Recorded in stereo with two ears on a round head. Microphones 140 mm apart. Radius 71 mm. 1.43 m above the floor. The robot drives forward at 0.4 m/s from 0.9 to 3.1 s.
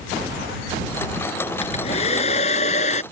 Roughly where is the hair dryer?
Left.